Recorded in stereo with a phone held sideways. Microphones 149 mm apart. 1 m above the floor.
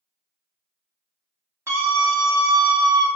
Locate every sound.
1.7 s a scream: 20° right (ahead or behind), 2 m; by 3.1 s 35° right (ahead or behind), 1.6 m